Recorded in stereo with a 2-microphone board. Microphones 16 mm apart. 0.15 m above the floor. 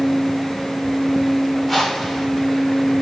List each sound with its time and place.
1.7 s a whoosh: centre (ahead or behind), 7.5 m